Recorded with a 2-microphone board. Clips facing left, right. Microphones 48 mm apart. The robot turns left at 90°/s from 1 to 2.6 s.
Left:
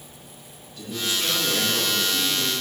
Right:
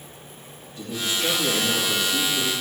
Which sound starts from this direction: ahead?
A man speaking, at 0.8 s.